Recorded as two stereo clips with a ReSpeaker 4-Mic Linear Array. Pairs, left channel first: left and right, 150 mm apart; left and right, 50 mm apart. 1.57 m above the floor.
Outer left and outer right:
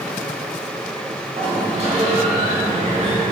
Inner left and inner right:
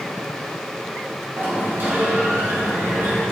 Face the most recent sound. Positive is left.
turn(degrees=-45)  # may be behind; listen again after turning